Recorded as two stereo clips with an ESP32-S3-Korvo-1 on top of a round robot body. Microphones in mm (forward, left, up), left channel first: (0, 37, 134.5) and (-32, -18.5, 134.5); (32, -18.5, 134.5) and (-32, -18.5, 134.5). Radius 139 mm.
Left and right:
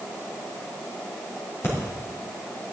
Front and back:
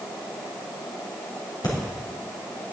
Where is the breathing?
5° left, 3.5 m.